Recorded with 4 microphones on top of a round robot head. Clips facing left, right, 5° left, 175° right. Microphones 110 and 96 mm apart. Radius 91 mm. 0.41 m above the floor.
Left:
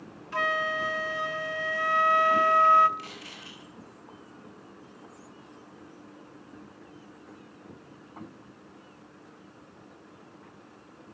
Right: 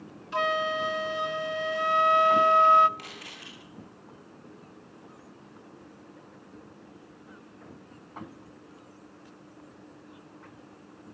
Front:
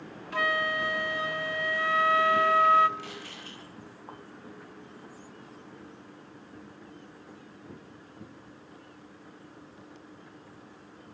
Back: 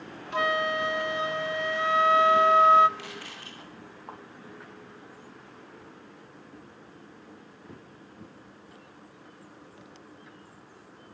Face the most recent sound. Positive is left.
turn(degrees=-135)